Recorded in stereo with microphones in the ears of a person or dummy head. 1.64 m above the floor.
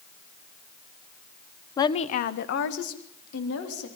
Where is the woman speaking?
25° left (ahead or behind), 1.0 m; by 3.9 s 85° left, 3.5 m.